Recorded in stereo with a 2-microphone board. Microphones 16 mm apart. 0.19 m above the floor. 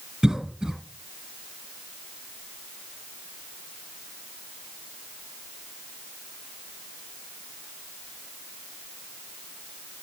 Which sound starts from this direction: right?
A cough, at 0.2 s.